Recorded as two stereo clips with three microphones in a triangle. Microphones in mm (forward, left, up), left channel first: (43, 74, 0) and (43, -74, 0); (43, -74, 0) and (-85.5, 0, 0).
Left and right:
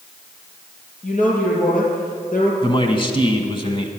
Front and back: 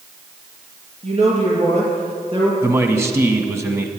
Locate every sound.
1.0 s a woman speaking: 115° left, 4.5 m; by 2.5 s 100° left, 4 m
2.6 s a man speaking: 95° left, 1.2 m